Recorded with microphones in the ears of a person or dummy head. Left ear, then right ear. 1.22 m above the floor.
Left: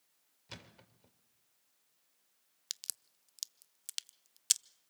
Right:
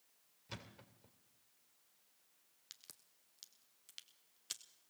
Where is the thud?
15° left (ahead or behind), 2 m.